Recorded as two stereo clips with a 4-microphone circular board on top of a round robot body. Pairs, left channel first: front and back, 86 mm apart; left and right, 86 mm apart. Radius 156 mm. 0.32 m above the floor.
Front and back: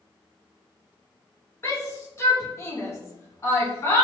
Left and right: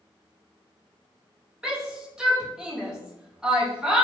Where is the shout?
15° right, 1.4 m.